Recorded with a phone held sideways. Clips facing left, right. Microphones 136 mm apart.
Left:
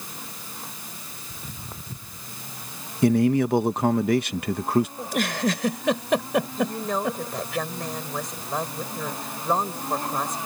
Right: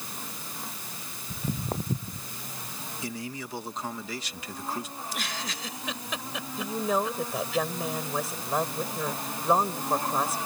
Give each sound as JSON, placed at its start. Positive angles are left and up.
{"t": 1.3, "sound": "footsteps", "side_deg": -45}
{"t": 3.0, "sound": "a man speaking", "side_deg": 60}
{"t": 5.0, "sound": "a giggle", "side_deg": 60}
{"t": 6.6, "sound": "a woman speaking", "side_deg": -5}